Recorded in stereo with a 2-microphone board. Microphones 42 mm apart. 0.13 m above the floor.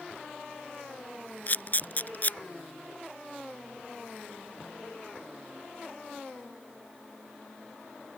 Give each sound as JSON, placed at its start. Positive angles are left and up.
{"t": 1.5, "sound": "a camera shutter", "side_deg": 45}